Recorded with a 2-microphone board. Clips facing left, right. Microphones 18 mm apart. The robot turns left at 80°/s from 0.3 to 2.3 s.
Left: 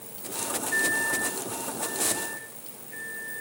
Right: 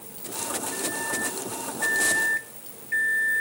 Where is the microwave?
40° left, 0.5 m; by 3.4 s 90° right, 0.5 m.